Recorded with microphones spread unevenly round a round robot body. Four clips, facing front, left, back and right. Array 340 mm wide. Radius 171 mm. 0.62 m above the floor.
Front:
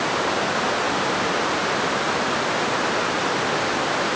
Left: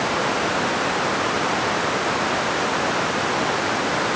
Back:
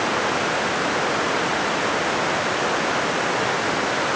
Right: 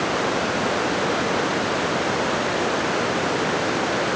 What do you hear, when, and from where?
Only background noise.